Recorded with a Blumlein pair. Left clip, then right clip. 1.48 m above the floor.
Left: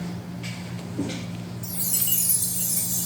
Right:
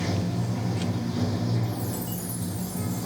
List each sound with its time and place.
0.0 s running water: 30° right
1.6 s a chime: 35° left